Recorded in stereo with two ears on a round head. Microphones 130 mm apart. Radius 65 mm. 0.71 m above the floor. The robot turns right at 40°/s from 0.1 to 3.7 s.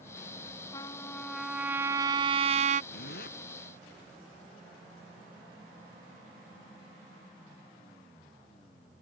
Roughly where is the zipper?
Left.